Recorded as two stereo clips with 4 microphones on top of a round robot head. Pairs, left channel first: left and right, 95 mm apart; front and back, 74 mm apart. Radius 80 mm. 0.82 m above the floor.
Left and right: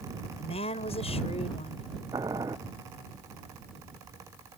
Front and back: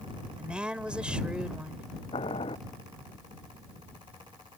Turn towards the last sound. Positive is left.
turn(degrees=-25)